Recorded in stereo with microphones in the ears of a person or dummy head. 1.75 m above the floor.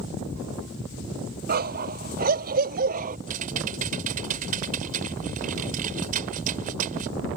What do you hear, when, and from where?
1.5 s a dog barking: 55° right (ahead or behind); by 3.2 s 50° right (ahead or behind)
3.3 s typing on a keyboard: 45° right (ahead or behind)